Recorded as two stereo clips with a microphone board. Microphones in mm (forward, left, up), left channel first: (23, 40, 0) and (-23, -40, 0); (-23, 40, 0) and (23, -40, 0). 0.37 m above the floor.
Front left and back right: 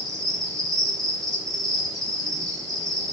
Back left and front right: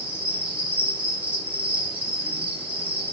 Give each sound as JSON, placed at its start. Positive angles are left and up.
{"t": 0.0, "sound": "an insect", "azimuth_deg": -125, "distance_m": 1.0}